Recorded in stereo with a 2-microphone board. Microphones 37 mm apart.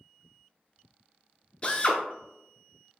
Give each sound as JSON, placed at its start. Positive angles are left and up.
{"t": 1.6, "sound": "a drill", "side_deg": 25, "distance_m": 0.6}